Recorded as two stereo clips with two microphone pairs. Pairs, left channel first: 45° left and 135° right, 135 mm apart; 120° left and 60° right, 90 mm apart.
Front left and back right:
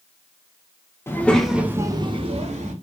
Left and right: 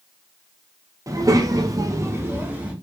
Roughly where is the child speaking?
Ahead.